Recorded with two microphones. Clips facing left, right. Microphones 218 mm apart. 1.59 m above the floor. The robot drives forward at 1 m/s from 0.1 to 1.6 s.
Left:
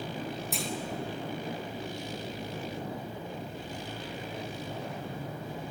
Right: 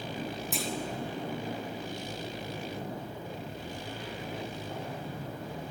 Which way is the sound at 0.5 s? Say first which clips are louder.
Right 1 dB; centre (ahead or behind).